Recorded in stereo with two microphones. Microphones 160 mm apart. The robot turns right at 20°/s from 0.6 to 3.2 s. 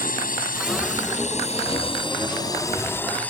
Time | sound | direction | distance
0.0 | a drone | 120° left | ?